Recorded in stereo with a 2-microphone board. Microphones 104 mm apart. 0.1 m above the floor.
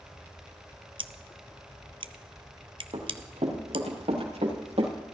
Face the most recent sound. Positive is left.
turn(degrees=-80)